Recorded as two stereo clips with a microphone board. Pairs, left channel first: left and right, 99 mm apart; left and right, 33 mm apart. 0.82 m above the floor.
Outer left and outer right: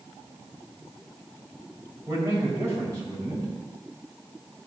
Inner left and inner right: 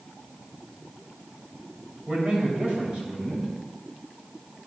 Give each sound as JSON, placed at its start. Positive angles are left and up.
{"t": 2.1, "sound": "a man speaking", "side_deg": -30, "distance_m": 3.0}